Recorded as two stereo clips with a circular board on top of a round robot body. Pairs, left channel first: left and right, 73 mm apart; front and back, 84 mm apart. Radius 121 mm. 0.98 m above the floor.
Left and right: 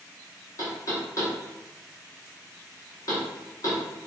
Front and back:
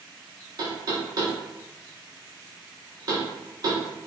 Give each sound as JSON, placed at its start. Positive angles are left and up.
{"t": 0.6, "sound": "knocking", "azimuth_deg": 135, "distance_m": 0.8}